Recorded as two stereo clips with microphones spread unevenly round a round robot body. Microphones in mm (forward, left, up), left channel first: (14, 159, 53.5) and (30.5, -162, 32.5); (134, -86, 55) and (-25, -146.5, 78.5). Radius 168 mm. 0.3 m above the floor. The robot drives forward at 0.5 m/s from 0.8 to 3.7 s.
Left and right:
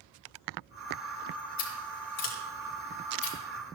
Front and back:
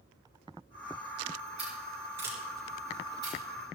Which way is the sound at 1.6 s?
115° left.